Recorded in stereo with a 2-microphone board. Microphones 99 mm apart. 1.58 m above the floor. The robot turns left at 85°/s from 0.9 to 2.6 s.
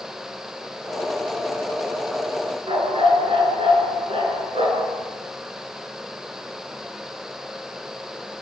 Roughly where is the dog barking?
Right.